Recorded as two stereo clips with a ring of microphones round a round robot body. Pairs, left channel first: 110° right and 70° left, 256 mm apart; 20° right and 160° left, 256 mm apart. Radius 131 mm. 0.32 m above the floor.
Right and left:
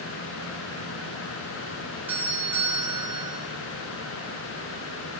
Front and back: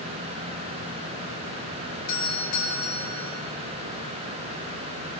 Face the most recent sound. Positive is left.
turn(degrees=-15)